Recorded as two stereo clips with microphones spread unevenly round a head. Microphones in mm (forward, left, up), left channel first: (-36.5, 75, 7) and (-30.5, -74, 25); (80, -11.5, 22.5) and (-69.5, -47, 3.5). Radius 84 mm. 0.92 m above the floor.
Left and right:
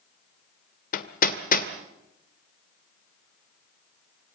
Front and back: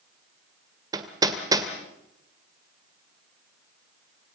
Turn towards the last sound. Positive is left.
turn(degrees=120)